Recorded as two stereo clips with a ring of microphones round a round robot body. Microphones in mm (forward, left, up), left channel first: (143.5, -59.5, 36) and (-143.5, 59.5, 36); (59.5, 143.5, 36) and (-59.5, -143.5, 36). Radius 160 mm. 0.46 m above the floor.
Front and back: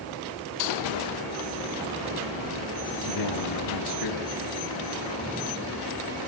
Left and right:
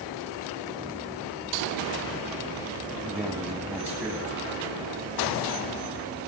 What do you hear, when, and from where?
3.0 s a man speaking: 30° right, 3 m